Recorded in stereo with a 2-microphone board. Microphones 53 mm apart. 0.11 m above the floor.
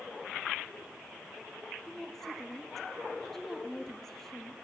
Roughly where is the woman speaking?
Centre.